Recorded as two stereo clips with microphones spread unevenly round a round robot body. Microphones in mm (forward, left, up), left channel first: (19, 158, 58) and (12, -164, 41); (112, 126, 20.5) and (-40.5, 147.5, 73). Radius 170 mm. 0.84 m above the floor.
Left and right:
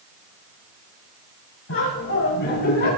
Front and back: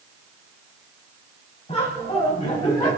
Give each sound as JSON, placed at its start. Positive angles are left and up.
{"t": 1.7, "sound": "laughter", "azimuth_deg": 45, "distance_m": 6.5}